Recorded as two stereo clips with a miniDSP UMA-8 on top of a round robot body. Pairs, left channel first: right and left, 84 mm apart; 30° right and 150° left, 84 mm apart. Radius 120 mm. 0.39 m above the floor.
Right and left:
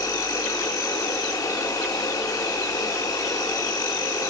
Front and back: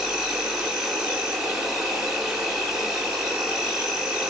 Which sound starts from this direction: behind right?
An insect, at 0.0 s.